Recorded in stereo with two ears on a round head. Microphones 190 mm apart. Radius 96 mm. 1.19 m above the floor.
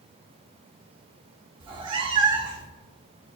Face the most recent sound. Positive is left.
turn(degrees=-20)  # may be behind; listen again after turning